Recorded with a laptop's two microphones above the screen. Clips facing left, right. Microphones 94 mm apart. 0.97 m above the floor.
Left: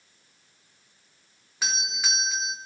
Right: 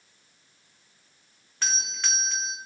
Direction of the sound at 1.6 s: 5° left (ahead or behind).